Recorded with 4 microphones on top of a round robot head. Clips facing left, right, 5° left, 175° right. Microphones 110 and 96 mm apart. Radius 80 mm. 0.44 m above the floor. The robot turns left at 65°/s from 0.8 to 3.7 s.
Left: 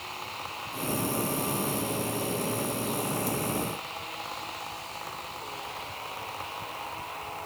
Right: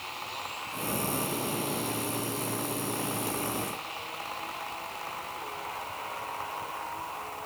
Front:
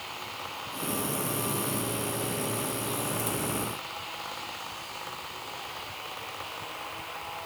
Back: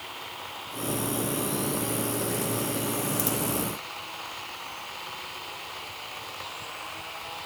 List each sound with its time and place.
Only background noise.